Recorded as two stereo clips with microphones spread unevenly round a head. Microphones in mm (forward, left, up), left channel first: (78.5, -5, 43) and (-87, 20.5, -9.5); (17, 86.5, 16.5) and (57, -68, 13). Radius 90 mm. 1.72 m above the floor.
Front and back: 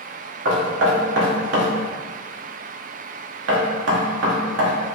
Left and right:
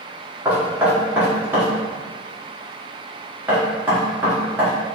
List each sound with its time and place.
0.5 s knocking: 155° right, 1.0 m